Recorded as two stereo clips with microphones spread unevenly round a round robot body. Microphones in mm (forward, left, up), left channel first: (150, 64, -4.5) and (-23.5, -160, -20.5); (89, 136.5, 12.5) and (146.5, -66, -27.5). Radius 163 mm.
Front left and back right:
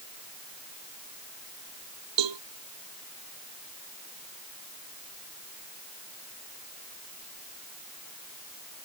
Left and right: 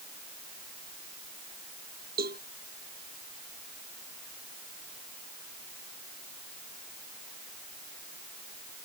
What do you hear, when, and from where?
2.2 s a cowbell: 140° right